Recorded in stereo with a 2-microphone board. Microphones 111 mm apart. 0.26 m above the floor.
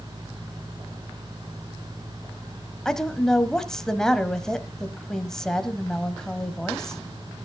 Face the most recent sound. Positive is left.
turn(degrees=5)  # may be behind; listen again after turning